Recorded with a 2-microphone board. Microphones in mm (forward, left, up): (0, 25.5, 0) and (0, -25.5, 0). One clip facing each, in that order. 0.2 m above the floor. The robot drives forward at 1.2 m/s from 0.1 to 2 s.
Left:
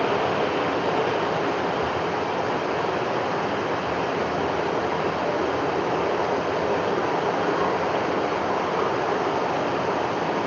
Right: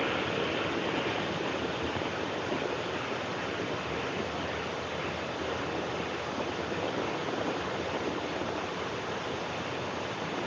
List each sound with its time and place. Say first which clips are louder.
0.0 s running water: left 8 dB; 70° left (ahead or behind); by 10.5 s 65° left (ahead or behind)